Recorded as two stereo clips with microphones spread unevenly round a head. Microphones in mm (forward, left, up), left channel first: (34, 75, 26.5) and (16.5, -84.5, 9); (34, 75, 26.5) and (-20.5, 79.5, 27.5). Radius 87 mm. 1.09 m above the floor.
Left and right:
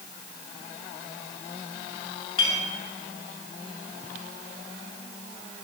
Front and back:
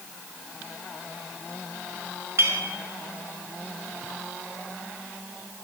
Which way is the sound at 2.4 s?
145° left.